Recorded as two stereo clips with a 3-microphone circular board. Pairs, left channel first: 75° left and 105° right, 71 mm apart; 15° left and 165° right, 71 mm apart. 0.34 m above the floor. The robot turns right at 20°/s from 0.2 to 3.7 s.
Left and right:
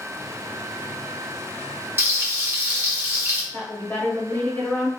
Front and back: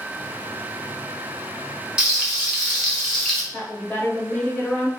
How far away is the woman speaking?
About 1.2 m.